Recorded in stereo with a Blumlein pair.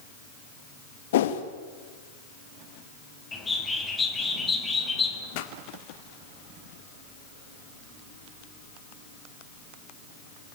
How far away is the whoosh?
About 2 m.